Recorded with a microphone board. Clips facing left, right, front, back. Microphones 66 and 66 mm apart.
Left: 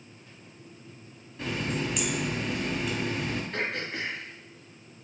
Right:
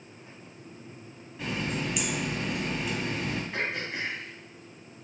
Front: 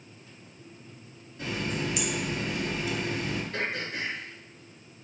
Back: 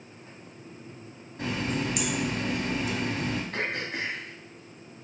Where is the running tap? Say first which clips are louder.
Left 1 dB, back 2 dB; straight behind, 1.2 m.